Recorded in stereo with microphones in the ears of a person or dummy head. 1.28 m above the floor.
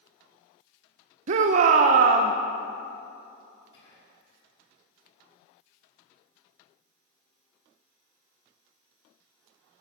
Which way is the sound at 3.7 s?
80° left.